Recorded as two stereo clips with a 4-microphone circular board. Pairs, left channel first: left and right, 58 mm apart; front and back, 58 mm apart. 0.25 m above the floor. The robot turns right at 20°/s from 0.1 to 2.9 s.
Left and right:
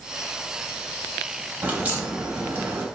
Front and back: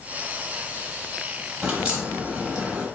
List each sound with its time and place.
1.6 s a crack: 135° right, 0.9 m; by 2.9 s 110° right, 0.9 m